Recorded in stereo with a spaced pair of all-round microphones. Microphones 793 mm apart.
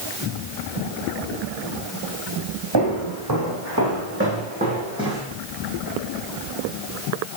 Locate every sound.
2.7 s footsteps: 30° right (ahead or behind), 3.5 m; by 5.2 s 5° right (ahead or behind), 3.5 m